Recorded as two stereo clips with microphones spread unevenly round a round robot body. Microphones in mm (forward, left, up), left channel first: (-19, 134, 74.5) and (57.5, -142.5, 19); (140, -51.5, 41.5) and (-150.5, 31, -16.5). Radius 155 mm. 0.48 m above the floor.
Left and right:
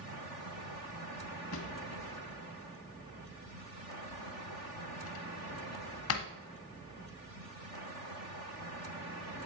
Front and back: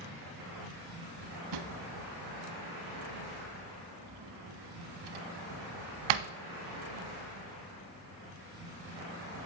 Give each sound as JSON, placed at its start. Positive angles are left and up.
{"t": 1.5, "sound": "a drawer", "azimuth_deg": 150, "distance_m": 1.0}